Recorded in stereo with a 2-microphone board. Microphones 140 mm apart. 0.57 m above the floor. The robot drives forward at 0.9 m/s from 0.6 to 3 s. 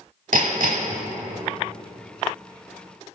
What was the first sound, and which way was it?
Hammering, 70° right (ahead or behind).